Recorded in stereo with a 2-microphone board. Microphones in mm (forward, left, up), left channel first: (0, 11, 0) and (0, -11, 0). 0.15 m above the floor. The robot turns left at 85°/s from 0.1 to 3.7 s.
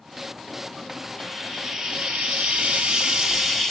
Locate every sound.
1.2 s frying: 25° left, 2 m; by 3.7 s 170° left, 2 m